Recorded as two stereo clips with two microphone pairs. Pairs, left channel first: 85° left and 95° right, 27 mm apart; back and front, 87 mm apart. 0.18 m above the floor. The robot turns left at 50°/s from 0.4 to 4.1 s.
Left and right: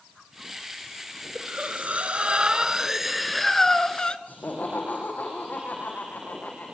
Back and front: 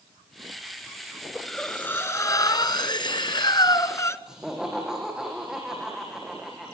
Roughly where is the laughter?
Left.